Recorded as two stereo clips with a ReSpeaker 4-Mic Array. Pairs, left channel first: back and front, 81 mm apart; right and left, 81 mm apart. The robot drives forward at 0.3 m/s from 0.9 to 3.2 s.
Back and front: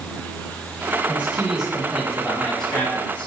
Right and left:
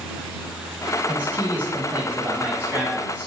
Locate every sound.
1.1 s a man speaking: 55° left, 1.1 m; by 3.3 s 125° left, 1.1 m